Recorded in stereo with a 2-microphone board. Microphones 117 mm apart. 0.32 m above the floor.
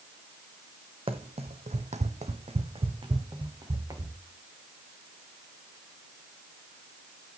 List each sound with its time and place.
1.1 s running footsteps: 55° right (ahead or behind), 1.1 m; by 4.2 s 30° right (ahead or behind), 2 m